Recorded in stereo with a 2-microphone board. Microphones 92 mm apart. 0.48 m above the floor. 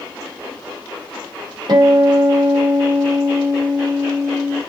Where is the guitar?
55° right (ahead or behind), 2.0 m.